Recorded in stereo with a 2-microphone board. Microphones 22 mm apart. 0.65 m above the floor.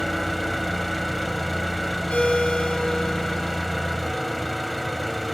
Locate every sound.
0.0 s an engine running: 10° left (ahead or behind), 1.0 m
2.1 s a ringtone: 75° left (ahead or behind), 3 m